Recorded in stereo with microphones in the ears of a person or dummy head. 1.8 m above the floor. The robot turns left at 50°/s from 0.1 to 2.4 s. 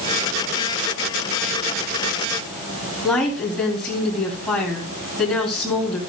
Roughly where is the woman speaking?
Centre.